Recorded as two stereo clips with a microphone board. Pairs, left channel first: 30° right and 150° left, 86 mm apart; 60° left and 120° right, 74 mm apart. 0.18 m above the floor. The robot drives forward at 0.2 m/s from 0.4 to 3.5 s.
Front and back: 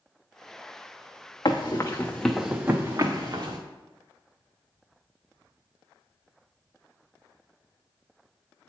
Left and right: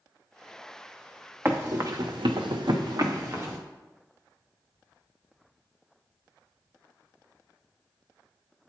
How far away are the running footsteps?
About 1.0 m.